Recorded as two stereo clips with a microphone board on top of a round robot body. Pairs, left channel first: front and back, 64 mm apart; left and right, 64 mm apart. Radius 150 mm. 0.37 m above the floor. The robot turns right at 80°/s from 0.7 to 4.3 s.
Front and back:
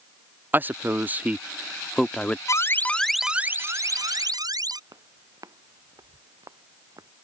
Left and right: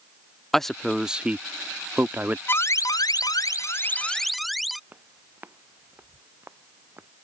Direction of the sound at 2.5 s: 35° left.